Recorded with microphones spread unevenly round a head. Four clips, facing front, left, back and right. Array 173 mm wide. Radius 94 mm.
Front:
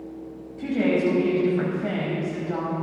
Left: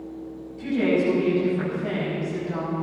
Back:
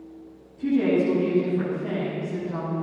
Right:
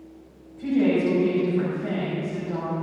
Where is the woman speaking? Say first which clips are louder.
Right 1 dB, back 1 dB; straight ahead, 5.5 m.